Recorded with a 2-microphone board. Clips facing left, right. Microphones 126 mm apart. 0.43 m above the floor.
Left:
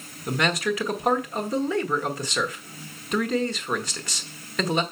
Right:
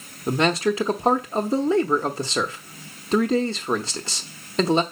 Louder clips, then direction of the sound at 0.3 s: Right 4 dB; 30° right (ahead or behind).